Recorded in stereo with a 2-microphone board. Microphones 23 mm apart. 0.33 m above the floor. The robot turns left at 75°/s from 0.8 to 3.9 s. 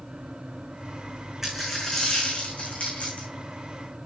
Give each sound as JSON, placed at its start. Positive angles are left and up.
{"t": 1.4, "sound": "a dropped coin", "azimuth_deg": -165, "distance_m": 4.0}